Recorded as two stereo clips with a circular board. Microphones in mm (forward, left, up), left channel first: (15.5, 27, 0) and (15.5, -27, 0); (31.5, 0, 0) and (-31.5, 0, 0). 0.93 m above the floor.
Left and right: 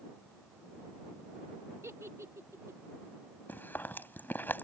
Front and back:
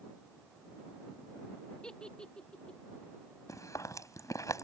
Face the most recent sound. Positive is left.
turn(degrees=35)